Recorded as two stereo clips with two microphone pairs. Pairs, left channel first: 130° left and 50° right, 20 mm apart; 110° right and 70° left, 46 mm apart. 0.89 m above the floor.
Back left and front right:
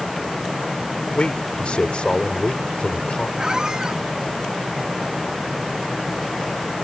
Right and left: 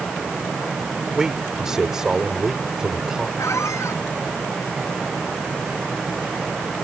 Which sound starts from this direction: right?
A squeak, at 3.4 s.